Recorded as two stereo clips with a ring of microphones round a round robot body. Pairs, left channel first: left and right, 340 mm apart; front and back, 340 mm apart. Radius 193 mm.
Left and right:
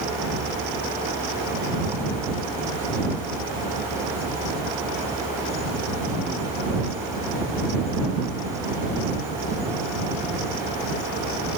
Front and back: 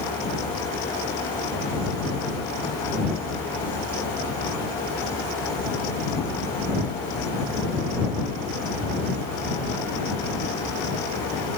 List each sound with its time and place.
Only background noise.